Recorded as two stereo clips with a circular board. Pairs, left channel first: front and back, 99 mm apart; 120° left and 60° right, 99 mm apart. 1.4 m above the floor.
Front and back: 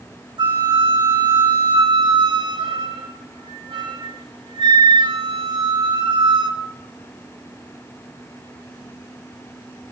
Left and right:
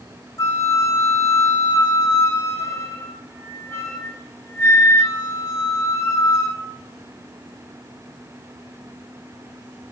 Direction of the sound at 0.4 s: 175° left.